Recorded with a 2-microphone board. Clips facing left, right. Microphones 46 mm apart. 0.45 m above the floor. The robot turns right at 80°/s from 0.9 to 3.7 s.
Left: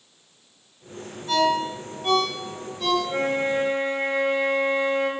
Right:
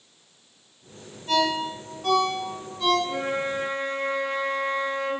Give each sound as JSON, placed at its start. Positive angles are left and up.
{"t": 1.3, "sound": "a ringtone", "side_deg": -50, "distance_m": 1.6}
{"t": 3.0, "sound": "a flute", "azimuth_deg": 80, "distance_m": 0.8}